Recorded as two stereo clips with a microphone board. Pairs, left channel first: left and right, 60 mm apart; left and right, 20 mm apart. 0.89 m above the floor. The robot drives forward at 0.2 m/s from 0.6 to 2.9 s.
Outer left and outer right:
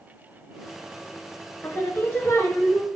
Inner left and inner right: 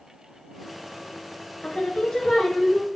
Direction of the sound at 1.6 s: 45° left (ahead or behind).